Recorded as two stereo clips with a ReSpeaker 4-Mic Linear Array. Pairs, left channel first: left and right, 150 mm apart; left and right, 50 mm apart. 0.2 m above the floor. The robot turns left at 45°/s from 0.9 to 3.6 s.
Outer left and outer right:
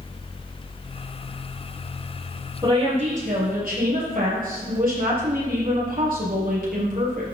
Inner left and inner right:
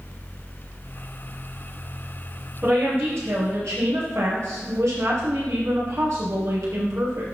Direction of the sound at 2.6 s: 30° right.